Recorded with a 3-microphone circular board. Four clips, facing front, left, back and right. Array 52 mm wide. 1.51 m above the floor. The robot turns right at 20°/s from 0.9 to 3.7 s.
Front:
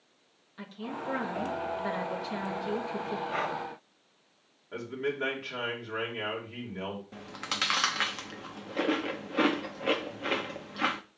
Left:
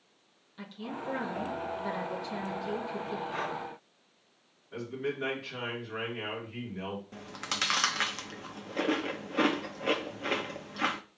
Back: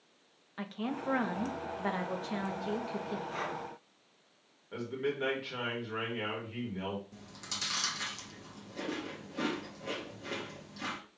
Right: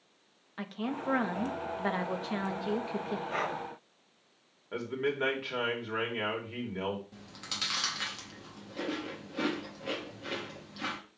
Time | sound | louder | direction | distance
0.6 | a woman speaking | right 4 dB, back 1 dB | 125° right | 1.1 m
3.3 | breathing | right 4 dB, front 5 dB | 50° right | 1.5 m
4.7 | a man speaking | right 2 dB, front 2 dB | 80° right | 3 m
7.1 | chewing | left 7 dB, front 10 dB | 40° left | 0.6 m